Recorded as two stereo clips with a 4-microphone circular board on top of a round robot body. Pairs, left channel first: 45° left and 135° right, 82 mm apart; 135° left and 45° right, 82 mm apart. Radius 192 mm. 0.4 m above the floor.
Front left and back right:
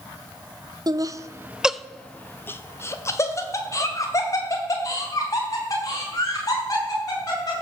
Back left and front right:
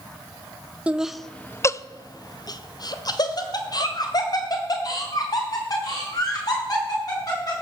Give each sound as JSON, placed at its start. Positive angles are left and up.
{"t": 0.9, "sound": "laughter", "azimuth_deg": -120, "distance_m": 1.1}